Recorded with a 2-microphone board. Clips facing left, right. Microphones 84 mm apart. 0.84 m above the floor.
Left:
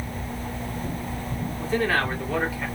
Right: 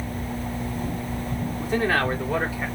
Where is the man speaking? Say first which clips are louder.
Right 1 dB; 15° right (ahead or behind), 1.7 m; by 2.7 s 25° right (ahead or behind), 2.5 m.